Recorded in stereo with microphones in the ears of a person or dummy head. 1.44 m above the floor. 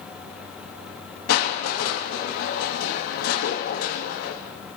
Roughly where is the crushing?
Left.